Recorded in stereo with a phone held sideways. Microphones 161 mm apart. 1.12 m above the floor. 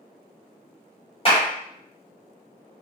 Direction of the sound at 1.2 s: 35° left (ahead or behind).